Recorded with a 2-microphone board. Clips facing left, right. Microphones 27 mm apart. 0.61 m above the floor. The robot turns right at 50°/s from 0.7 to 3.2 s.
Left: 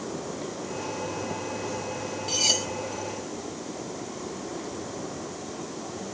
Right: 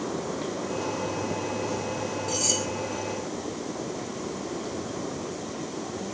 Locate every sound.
2.3 s cutlery clinking: 35° left (ahead or behind), 2 m; by 2.7 s 55° left (ahead or behind), 2 m